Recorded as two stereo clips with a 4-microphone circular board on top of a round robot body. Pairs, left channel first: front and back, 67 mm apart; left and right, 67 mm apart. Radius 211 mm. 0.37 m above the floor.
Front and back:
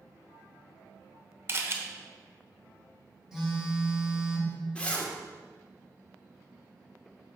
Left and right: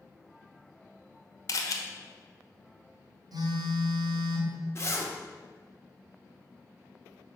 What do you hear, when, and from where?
1.5 s a camera shutter: 125° left, 1.0 m
3.3 s a phone buzzing: 95° right, 1.6 m
4.8 s a zipper: 65° left, 1.6 m